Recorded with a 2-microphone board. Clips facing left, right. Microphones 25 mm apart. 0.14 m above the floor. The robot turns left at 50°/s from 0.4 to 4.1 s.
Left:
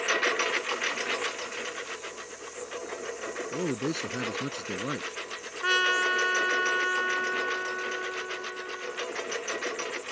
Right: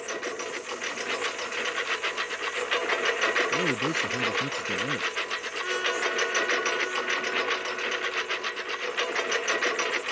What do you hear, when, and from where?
0.0 s a lawn mower: 35° left; by 10.1 s 150° right
3.5 s a man speaking: 5° left (ahead or behind); by 5.1 s 20° left (ahead or behind)
5.6 s a trumpet: 40° left (ahead or behind)